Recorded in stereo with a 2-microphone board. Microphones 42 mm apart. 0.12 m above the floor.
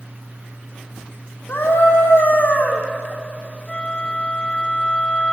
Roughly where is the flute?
Left.